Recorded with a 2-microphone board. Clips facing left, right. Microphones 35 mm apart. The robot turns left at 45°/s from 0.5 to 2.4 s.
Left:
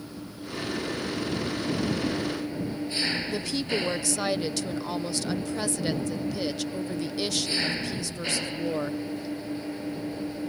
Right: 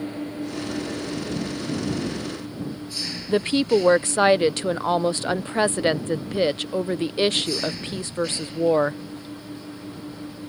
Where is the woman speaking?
45° right (ahead or behind).